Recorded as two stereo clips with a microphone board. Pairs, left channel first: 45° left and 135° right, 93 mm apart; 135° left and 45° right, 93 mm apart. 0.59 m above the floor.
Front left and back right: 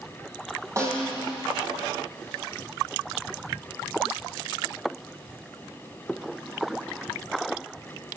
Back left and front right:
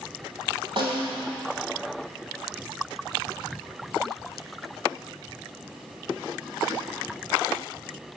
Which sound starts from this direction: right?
A snare drum, at 0.8 s.